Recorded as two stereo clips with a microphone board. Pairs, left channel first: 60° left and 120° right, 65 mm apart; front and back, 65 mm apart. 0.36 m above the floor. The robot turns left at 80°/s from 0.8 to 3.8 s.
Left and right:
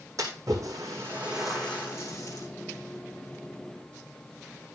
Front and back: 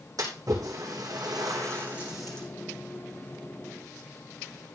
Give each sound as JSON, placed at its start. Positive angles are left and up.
{"t": 0.2, "sound": "a splash", "azimuth_deg": -155, "distance_m": 5.5}